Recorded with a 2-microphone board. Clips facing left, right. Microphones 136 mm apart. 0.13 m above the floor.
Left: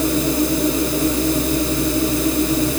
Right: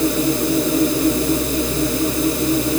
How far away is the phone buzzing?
No phone buzzing in this recording.